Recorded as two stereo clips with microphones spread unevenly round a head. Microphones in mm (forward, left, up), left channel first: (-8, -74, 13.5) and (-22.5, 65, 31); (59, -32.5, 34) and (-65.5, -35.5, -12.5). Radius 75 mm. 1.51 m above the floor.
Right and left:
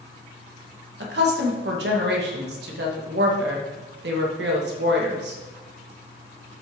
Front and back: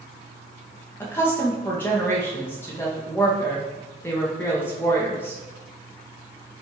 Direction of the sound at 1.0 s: 80° left.